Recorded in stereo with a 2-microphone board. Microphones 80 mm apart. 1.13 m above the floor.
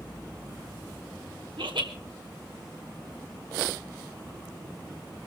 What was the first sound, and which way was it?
Laughter, 80° right.